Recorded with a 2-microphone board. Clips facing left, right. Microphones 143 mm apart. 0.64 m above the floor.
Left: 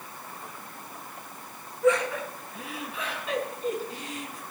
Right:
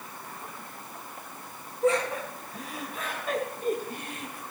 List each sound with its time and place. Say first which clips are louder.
1.8 s laughter: left 2 dB; 35° right (ahead or behind), 6.5 m; by 4.4 s 60° right (ahead or behind), 6 m